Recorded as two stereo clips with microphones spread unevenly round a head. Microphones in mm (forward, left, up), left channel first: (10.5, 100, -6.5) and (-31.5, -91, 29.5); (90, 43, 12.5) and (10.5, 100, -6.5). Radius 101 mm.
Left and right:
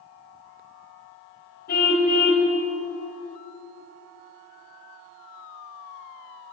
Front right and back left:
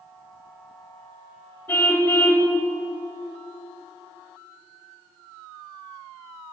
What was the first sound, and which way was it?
A car horn, 30° left.